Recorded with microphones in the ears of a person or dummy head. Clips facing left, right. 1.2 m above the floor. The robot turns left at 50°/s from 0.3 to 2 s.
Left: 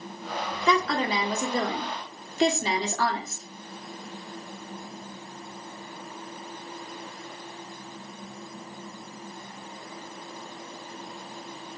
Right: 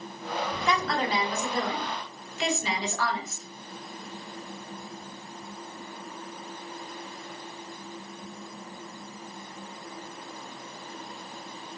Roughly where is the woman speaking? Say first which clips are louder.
Left 4 dB; left.